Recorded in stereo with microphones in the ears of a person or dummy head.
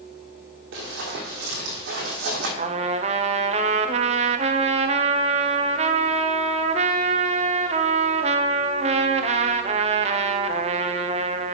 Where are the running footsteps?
55° right (ahead or behind), 2.5 m; by 2.5 s 50° right (ahead or behind), 3 m.